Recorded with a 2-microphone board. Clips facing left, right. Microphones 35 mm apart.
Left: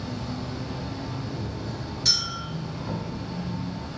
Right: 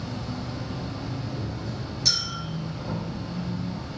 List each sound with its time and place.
0.0 s an insect: 60° left (ahead or behind), 1.2 m
2.0 s a clink: 20° left (ahead or behind), 1.9 m